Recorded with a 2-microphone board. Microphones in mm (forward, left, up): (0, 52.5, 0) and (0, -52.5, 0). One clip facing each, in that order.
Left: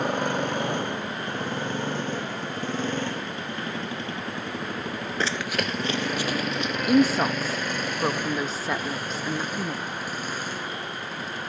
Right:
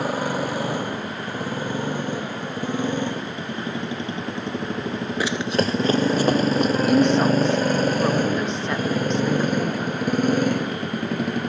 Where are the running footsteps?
10° right (ahead or behind); by 6.8 s 50° right (ahead or behind).